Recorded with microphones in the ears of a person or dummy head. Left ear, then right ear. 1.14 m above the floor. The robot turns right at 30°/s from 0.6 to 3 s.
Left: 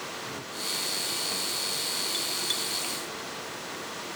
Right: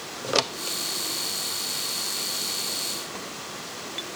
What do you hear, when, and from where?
Only background noise.